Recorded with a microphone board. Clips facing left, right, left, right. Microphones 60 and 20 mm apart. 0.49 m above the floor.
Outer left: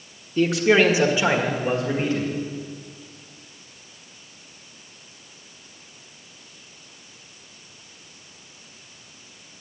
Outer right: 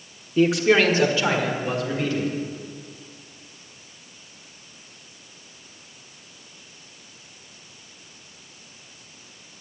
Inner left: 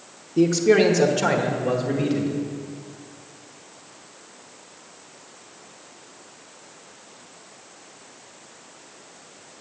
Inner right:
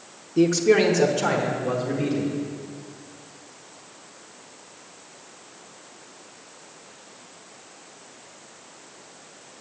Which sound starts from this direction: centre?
A man speaking, at 0.4 s.